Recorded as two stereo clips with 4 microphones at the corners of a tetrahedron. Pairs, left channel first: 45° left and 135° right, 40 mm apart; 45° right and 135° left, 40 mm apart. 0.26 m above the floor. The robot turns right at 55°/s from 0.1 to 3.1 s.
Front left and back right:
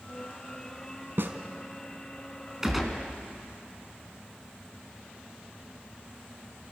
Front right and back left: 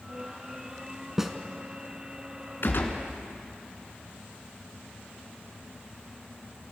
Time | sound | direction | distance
1.2 | a snare drum | 145° right | 1.3 m
2.6 | a gunshot | 60° right | 2.5 m